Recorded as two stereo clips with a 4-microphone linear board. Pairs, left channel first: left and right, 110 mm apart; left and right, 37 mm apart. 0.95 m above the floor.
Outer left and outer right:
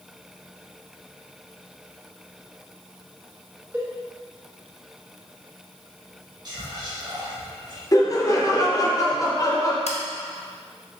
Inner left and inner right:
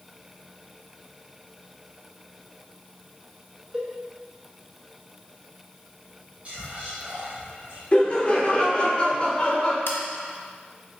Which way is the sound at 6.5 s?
40° right (ahead or behind).